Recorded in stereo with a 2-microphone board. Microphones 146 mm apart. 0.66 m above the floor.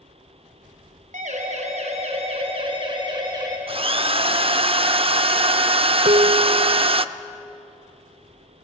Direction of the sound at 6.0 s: 60° right (ahead or behind).